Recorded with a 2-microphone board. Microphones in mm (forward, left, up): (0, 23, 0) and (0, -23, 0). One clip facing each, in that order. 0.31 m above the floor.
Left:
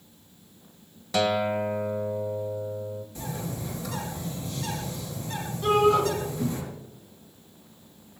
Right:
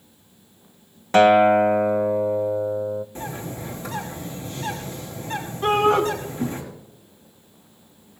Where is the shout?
45° right (ahead or behind), 3 m.